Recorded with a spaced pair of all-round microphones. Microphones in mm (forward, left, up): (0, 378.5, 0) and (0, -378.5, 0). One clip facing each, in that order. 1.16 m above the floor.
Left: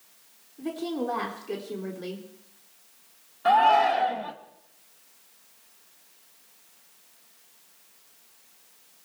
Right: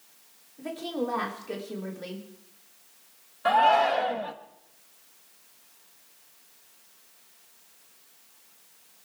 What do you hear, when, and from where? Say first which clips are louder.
0.6 s a woman speaking: left 2 dB; 15° right (ahead or behind), 3 m
3.5 s a shout: left 1 dB; 10° right (ahead or behind), 1.1 m